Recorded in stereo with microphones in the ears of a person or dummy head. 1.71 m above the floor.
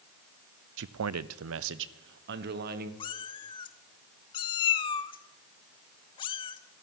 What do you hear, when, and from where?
0.8 s a man speaking: 60° right (ahead or behind), 0.7 m; by 2.9 s 55° right (ahead or behind), 1.9 m
3.0 s a cat meowing: 30° left (ahead or behind), 1.5 m